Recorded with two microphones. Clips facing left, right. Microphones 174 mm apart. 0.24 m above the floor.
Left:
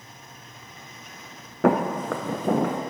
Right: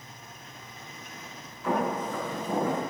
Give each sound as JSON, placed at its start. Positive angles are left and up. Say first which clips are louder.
{"t": 1.6, "sound": "footsteps", "louder": "left 7 dB", "side_deg": 75, "distance_m": 0.9}